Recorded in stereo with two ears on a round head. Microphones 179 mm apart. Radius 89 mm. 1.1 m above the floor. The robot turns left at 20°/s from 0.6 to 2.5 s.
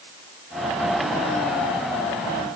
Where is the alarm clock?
No alarm clock in this recording.